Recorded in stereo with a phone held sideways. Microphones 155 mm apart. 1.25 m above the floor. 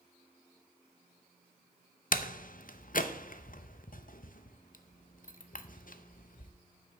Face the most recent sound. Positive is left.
turn(degrees=65)  # may be behind; listen again after turning